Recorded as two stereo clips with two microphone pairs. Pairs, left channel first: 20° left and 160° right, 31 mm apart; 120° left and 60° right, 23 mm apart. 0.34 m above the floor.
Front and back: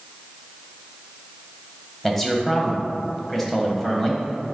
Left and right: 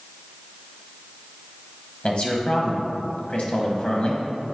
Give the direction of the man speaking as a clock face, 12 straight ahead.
9 o'clock.